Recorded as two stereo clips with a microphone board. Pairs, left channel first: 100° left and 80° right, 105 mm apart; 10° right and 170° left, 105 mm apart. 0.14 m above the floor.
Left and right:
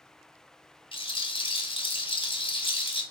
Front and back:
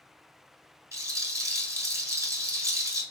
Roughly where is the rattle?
Behind left.